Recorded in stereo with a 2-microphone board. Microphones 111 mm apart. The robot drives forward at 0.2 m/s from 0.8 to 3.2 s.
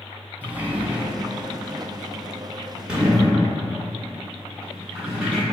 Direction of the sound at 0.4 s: 15° right (ahead or behind).